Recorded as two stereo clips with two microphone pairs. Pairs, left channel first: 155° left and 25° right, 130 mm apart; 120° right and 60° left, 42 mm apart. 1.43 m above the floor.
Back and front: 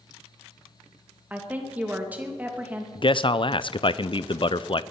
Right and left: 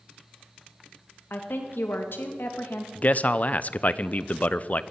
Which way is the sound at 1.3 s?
105° right.